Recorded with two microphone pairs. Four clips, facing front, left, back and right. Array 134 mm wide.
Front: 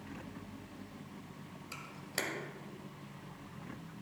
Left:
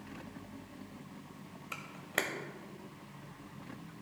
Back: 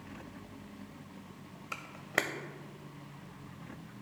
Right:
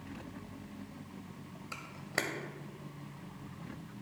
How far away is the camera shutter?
About 0.6 m.